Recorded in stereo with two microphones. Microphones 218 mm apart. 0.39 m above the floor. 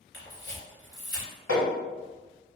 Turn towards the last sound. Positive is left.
turn(degrees=70)  # may be behind; listen again after turning